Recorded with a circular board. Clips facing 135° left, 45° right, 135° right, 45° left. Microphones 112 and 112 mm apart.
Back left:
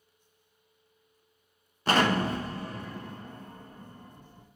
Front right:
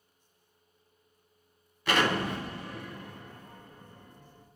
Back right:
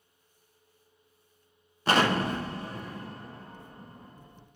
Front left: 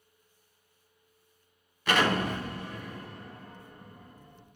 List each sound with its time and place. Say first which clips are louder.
1.9 s an explosion: back left 3 dB, back right 2 dB; straight behind, 0.5 m